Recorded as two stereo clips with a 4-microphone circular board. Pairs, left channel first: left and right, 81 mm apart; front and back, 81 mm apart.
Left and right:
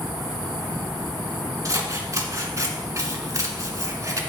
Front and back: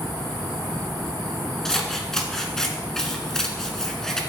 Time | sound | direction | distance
1.6 | scissors | 80° right | 1.4 m